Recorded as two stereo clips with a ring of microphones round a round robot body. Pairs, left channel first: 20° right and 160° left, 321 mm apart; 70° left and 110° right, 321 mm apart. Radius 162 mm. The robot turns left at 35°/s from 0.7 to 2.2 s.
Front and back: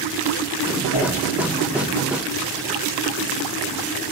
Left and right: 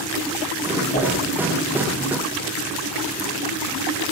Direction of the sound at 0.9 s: Straight ahead.